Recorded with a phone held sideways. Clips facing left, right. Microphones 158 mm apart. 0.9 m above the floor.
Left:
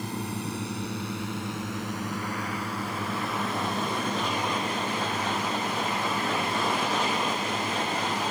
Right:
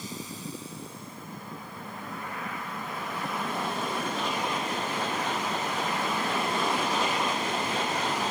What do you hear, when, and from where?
0.0 s a drone: 60° left (ahead or behind); by 8.3 s 55° left (ahead or behind)